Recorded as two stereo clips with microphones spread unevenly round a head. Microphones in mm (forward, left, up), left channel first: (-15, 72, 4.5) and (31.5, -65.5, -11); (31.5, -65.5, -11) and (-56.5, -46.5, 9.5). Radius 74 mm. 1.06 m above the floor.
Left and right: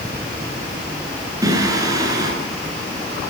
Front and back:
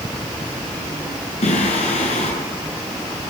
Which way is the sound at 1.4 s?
5° right.